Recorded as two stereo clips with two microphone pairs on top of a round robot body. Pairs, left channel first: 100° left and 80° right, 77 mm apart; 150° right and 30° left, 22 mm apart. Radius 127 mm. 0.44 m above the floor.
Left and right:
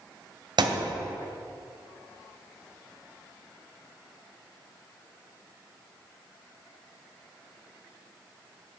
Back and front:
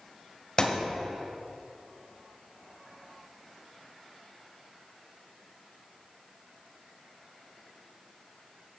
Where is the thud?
100° right, 1.3 m.